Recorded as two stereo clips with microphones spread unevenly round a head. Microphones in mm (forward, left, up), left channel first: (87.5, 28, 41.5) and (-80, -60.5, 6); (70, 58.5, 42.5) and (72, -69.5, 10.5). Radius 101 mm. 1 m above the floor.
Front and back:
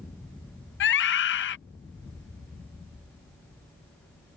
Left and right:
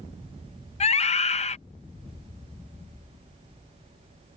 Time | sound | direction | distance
0.8 | a scream | 55° left | ?